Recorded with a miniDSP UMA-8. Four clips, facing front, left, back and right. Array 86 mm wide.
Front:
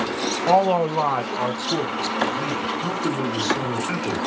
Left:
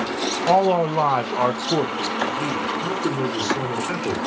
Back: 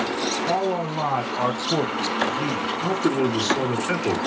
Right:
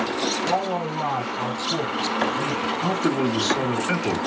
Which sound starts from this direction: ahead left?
A man speaking, at 0.5 s.